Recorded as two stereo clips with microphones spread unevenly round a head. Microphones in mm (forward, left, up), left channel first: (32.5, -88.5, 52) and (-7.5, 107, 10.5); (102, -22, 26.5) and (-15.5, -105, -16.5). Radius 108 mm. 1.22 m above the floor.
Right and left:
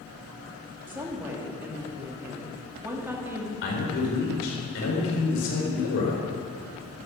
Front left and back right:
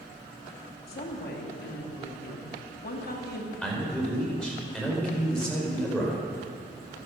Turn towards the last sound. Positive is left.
turn(degrees=-50)